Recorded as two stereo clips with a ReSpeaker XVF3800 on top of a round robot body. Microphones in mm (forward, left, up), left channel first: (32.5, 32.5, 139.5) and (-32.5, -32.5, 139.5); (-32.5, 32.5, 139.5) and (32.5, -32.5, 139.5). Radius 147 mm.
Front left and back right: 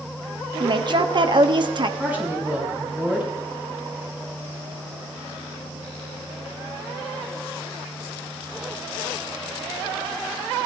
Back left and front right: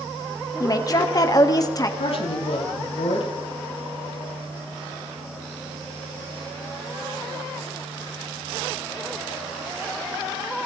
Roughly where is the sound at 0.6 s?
Behind.